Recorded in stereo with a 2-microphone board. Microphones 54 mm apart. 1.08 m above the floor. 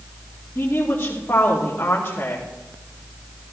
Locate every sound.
0.6 s a woman speaking: 45° left (ahead or behind), 2.5 m